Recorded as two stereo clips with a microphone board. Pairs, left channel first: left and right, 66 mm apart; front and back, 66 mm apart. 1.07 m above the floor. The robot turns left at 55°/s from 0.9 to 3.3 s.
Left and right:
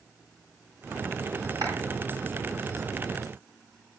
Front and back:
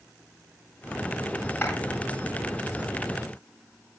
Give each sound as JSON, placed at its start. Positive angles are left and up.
{"t": 1.6, "sound": "a clap", "azimuth_deg": -70, "distance_m": 9.5}